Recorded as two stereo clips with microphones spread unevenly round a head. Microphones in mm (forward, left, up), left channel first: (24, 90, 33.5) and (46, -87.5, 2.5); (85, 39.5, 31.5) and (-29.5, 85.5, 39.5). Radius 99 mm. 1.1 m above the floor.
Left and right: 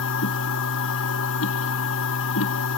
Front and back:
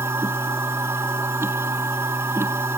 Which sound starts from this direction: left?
A machine running, at 0.0 s.